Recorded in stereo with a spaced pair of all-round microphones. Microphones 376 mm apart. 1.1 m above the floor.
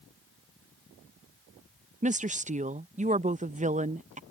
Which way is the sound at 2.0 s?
20° right (ahead or behind).